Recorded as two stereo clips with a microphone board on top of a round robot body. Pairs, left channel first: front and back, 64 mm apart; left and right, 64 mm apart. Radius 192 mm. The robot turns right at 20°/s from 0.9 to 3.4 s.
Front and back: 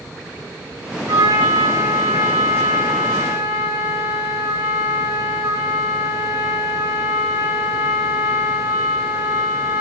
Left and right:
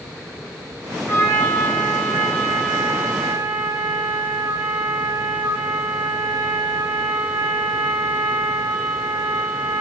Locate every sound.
1.1 s a trumpet: 160° left, 4.5 m; by 9.8 s 155° right, 4.5 m